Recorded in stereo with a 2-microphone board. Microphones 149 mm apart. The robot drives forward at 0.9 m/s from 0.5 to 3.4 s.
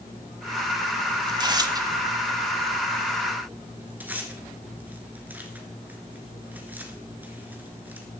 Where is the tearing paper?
30° right (ahead or behind), 0.8 m; by 8.1 s 10° right (ahead or behind), 2.0 m.